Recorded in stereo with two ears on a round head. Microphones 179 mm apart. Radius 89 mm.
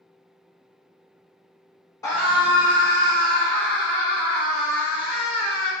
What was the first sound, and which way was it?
A scream, 15° left (ahead or behind).